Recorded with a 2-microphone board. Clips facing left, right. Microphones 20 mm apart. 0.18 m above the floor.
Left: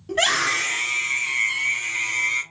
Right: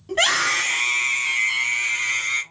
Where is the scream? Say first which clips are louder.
Right 1 dB; 10° right (ahead or behind), 1.1 m; by 2.4 s 55° right (ahead or behind), 1.9 m.